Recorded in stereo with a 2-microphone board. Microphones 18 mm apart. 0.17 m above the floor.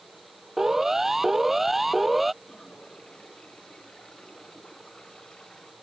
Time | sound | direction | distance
0.6 | a siren | 20° right (ahead or behind) | ?
2.4 | a toilet flushing | 55° left (ahead or behind) | ?